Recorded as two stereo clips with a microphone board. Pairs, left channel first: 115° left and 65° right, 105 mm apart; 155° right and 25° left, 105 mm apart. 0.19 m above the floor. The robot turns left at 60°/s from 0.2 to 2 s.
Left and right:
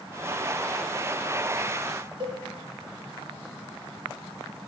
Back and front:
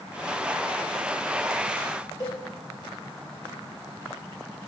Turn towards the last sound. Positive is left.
turn(degrees=-105)